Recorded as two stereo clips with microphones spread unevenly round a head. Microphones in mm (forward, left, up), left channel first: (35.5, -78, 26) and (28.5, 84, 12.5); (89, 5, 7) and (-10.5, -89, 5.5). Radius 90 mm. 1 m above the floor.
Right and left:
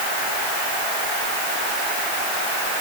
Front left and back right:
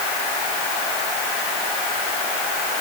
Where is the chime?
I don't hear a chime.